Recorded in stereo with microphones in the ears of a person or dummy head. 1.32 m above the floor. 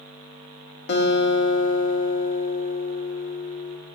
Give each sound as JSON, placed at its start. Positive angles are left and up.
{"t": 0.9, "sound": "a guitar", "side_deg": 75, "distance_m": 0.6}